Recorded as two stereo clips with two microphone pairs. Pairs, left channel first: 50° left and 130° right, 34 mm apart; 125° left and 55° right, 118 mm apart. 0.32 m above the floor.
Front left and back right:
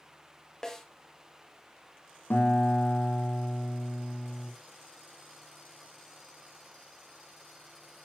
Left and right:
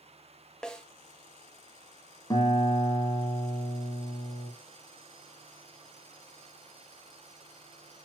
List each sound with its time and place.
0.6 s a snare drum: 55° left, 0.9 m
2.3 s a guitar: 65° left, 1.4 m